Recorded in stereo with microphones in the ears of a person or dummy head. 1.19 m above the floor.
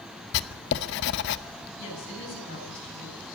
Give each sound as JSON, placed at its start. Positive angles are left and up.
{"t": 0.3, "sound": "writing", "side_deg": 65, "distance_m": 0.9}
{"t": 1.8, "sound": "a woman speaking", "side_deg": 75, "distance_m": 8.5}